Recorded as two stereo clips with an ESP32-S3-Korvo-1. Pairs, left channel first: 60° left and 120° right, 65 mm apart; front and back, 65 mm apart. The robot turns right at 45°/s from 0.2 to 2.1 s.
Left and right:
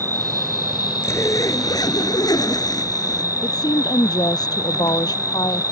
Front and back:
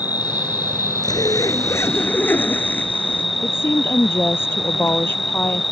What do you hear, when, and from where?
0.0 s an insect: 5° left; by 5.7 s 90° left
1.0 s a zipper: 15° left; by 3.2 s 60° left
3.4 s a woman speaking: 55° left